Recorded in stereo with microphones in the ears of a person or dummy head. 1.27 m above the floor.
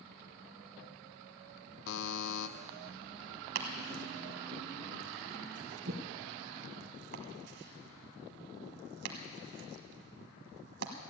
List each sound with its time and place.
1.9 s a buzzer: 65° left (ahead or behind), 0.7 m
3.5 s chopping: 60° right (ahead or behind), 1.4 m